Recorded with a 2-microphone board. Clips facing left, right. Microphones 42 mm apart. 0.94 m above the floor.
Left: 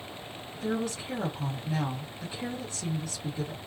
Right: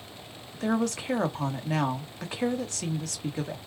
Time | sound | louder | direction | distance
0.5 | a woman speaking | right 4 dB | 80° right | 1.5 m